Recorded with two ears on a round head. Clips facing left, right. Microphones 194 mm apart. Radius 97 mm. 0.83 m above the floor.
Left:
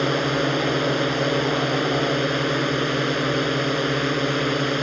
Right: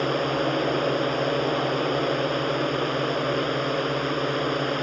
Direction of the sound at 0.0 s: 30° left (ahead or behind).